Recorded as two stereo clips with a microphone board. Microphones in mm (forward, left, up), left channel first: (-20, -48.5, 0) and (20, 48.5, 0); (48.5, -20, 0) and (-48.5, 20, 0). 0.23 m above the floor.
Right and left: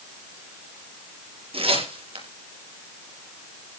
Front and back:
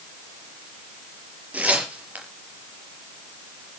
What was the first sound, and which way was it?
Tearing paper, 80° left.